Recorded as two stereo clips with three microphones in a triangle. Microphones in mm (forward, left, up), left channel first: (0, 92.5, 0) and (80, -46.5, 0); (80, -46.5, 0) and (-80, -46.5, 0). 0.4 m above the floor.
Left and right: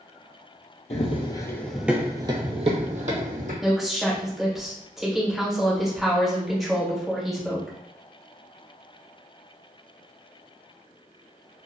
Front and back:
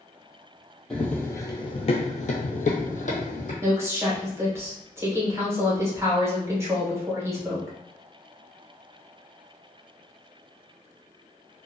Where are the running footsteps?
85° left, 0.6 m; by 3.5 s 35° right, 1.0 m.